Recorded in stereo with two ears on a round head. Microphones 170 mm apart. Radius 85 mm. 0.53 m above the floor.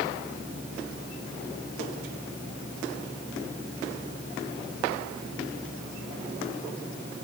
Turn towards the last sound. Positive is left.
No sound to turn to.